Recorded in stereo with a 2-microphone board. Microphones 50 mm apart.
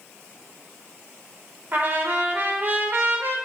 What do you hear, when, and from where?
1.7 s a trumpet: 35° right (ahead or behind), 0.8 m